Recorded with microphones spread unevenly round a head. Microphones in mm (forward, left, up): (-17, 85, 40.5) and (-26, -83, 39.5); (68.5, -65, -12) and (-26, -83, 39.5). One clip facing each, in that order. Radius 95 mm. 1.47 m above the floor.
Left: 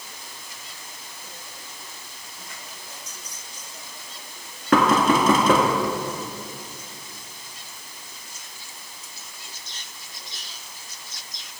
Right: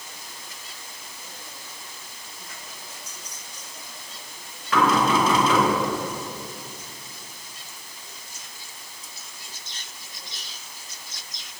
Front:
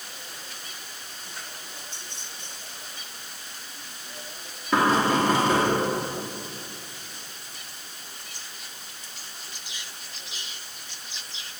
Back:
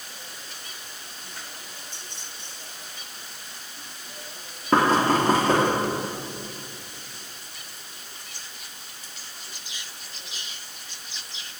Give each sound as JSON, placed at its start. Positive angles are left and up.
{"t": 4.7, "sound": "knocking", "azimuth_deg": 130, "distance_m": 2.0}